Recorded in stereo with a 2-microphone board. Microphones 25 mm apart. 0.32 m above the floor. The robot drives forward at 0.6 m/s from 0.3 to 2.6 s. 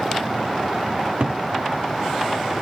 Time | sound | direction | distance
1.0 | a cupboard door | 60° right (ahead or behind) | 0.7 m